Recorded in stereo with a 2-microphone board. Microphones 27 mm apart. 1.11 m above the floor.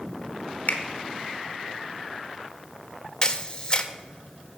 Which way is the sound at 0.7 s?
65° left (ahead or behind).